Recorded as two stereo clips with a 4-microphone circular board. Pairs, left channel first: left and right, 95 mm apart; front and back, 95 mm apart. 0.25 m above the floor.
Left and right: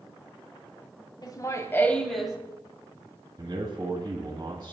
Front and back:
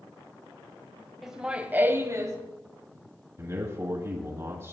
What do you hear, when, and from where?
1.2 s laughter: 90° left, 1.4 m; by 2.4 s 165° right, 1.3 m
3.4 s a man speaking: 130° right, 1.5 m